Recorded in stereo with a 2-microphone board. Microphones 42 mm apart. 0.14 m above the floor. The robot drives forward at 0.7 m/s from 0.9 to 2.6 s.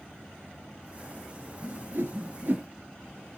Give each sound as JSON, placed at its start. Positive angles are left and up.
{"t": 1.6, "sound": "a whoosh", "side_deg": -55, "distance_m": 0.7}